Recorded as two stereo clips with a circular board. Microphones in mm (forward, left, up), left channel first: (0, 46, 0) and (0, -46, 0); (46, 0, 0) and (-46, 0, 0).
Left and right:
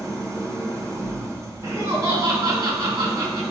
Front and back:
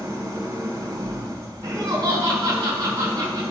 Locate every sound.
0.0 s an engine running: 140° right, 1.8 m
1.6 s laughter: 130° right, 3.5 m